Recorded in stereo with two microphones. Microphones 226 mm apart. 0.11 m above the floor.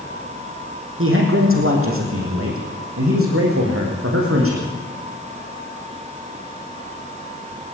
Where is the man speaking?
65° right (ahead or behind), 5 m; by 4.6 s 75° right (ahead or behind), 6 m.